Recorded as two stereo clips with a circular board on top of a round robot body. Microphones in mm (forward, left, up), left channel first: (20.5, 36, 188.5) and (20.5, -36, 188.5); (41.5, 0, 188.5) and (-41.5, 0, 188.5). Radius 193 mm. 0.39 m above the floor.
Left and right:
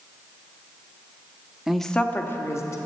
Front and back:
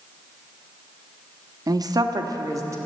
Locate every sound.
1.7 s a woman speaking: 170° right, 1.1 m; by 2.8 s 130° left, 1.9 m